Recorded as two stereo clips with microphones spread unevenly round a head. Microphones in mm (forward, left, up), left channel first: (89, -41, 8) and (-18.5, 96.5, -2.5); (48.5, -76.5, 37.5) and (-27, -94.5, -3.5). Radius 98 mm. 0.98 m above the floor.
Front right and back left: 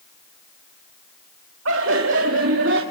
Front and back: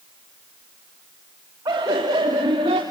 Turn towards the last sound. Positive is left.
turn(degrees=150)